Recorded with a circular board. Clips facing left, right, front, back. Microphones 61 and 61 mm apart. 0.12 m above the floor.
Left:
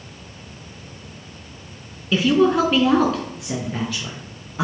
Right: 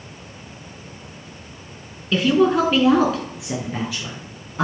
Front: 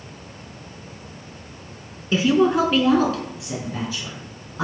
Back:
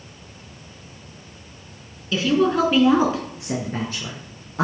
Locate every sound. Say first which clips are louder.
2.1 s a woman speaking: even, front 2 dB; 5° left, 1.1 m; by 4.6 s 175° right, 2 m